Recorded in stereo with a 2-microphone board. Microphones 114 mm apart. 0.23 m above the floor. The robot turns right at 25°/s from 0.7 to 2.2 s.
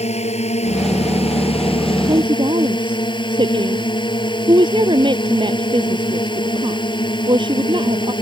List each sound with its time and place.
0.0 s a drone: 95° left; by 8.2 s 135° left
2.1 s a woman speaking: 45° right (ahead or behind)